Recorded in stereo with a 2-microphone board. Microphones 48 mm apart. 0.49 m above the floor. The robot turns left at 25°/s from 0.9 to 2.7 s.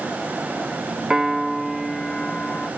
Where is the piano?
165° right, 0.8 m; by 2.7 s 155° left, 0.8 m.